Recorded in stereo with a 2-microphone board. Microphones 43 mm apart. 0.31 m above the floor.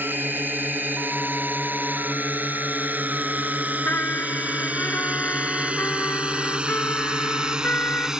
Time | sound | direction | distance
0.0 | a drone | 50° right (ahead or behind) | ?
3.9 | a trumpet | 50° left (ahead or behind) | ?